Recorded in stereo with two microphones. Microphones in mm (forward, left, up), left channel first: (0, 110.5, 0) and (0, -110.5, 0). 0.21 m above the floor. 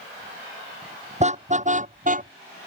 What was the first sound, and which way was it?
A car horn, 30° right (ahead or behind).